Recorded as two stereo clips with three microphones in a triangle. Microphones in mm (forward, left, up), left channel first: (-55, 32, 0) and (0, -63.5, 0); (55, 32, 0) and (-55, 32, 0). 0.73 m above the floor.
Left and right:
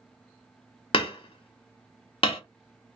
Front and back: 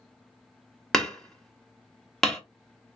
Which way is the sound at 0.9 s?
85° left.